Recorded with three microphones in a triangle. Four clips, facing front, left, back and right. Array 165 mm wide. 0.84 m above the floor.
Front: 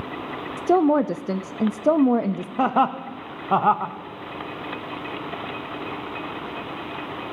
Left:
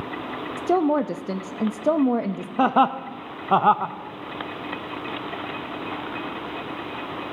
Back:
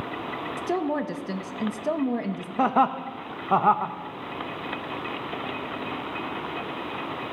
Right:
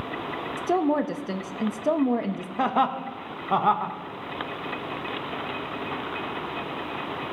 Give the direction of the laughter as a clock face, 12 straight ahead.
9 o'clock.